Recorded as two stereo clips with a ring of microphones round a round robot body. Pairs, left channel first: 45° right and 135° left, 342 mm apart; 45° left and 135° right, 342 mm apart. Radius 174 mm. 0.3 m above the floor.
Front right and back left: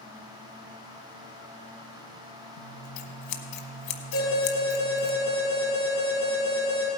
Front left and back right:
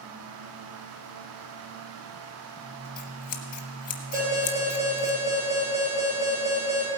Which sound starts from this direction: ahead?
Scissors, at 2.6 s.